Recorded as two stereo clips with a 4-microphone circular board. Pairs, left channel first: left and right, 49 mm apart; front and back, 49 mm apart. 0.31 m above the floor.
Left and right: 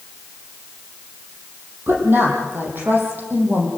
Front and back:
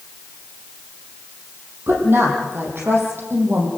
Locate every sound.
1.9 s a woman speaking: 135° right, 9.5 m; by 3.7 s 140° right, 10 m